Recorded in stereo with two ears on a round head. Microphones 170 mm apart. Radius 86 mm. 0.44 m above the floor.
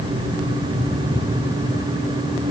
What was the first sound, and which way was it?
Only background noise.